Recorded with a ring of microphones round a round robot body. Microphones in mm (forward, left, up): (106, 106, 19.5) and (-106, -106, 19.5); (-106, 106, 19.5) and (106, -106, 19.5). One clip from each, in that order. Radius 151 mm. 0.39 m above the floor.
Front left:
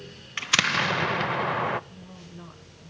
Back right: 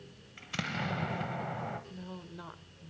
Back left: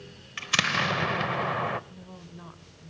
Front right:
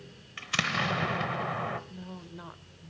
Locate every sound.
0.4 s an explosion: 60° left, 0.6 m
1.9 s a woman speaking: 100° right, 1.2 m